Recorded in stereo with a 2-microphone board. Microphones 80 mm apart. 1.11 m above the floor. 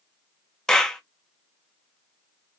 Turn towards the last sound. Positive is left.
turn(degrees=5)  # may be behind; listen again after turning